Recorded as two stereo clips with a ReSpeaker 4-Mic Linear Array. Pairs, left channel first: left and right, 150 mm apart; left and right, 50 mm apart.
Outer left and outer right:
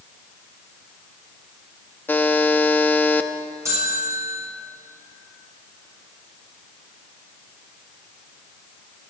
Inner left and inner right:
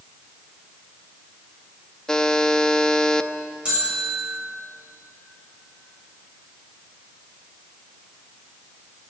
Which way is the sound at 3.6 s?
20° right (ahead or behind).